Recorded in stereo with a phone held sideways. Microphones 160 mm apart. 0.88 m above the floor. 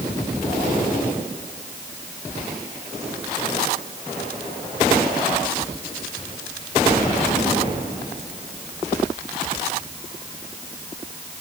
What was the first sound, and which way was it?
Only background noise.